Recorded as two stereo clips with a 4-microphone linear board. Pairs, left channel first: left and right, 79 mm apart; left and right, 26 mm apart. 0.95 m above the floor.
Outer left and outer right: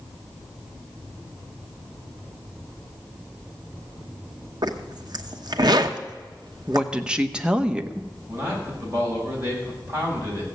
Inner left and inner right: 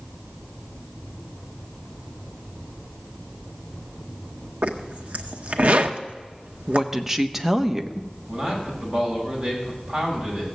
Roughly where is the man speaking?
Right.